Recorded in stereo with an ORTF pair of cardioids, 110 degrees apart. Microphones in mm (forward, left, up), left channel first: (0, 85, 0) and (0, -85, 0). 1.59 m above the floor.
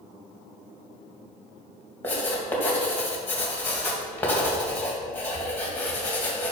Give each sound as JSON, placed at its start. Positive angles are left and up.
{"t": 2.0, "sound": "writing", "azimuth_deg": 10, "distance_m": 2.5}